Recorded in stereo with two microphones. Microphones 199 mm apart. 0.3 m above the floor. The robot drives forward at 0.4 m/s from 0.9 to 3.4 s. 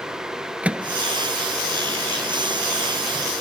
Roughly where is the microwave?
Centre.